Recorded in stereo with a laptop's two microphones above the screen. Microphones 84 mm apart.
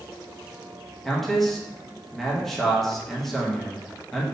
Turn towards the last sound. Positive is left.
turn(degrees=0)  # may be behind; listen again after turning